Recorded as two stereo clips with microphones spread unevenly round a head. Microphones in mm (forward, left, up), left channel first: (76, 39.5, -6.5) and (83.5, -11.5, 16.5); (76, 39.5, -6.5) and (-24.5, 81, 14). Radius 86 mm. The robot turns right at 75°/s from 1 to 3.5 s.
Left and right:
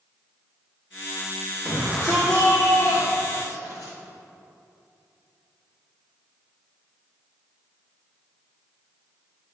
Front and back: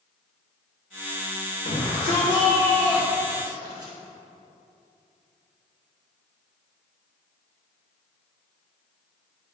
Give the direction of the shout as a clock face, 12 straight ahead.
1 o'clock.